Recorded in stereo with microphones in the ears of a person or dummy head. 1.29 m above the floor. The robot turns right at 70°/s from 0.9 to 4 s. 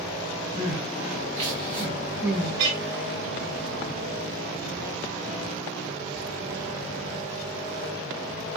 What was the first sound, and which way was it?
Crying, 15° right (ahead or behind).